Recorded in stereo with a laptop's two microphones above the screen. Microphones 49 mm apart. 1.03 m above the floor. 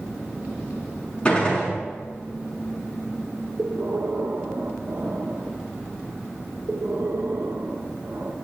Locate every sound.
1.2 s a gunshot: 20° left (ahead or behind), 5 m
3.6 s breathing: 60° right (ahead or behind), 1.2 m